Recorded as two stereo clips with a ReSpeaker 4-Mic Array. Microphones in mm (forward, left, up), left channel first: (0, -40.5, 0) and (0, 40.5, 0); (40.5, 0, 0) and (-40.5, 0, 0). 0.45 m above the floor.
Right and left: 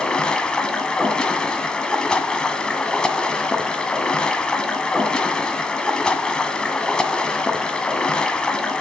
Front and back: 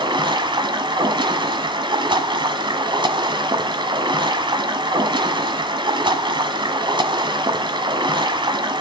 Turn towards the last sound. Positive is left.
turn(degrees=-170)